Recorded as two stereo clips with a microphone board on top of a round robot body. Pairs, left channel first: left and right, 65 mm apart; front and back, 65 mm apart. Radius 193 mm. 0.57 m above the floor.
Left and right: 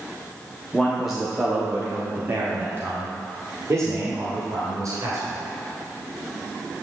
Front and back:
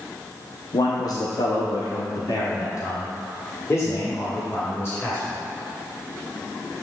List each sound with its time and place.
0.7 s a man speaking: 5° left, 1.1 m; by 5.4 s 55° right, 3 m